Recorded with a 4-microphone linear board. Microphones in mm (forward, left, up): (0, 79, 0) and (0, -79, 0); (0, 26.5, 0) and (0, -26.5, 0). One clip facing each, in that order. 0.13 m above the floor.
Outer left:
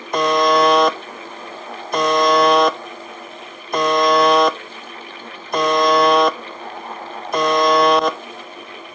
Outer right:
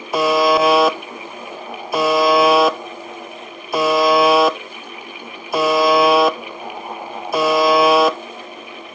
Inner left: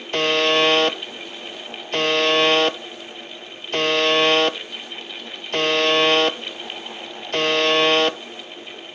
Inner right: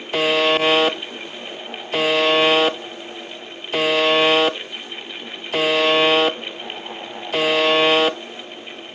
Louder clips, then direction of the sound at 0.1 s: Outer right 1 dB, inner right 1 dB; 5° right (ahead or behind).